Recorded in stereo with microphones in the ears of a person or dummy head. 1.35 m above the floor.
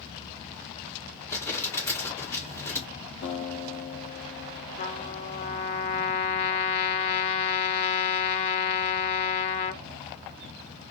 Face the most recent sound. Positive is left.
turn(degrees=35)  # may be behind; listen again after turning